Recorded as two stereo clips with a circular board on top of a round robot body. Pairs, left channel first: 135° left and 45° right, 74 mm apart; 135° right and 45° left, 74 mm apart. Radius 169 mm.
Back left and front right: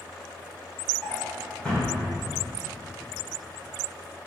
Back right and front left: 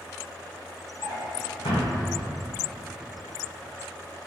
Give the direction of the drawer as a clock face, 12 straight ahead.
5 o'clock.